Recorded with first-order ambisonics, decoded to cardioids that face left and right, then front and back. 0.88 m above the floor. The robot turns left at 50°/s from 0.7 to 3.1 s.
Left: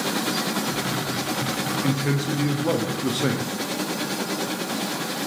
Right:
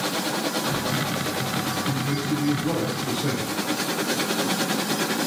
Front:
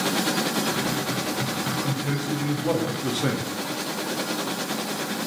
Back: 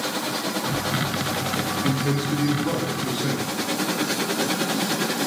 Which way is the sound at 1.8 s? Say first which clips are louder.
Left 1 dB, back 3 dB; 125° left.